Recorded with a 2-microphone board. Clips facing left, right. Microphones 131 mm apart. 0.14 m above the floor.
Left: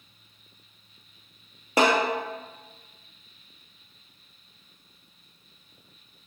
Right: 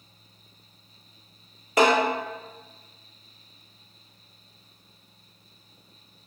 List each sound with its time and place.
1.8 s a snare drum: 30° left (ahead or behind), 1.6 m